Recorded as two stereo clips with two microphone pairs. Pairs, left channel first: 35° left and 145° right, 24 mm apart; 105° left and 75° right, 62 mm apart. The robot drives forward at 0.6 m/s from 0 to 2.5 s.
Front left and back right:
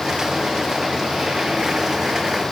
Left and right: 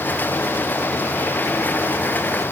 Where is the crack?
No crack in this recording.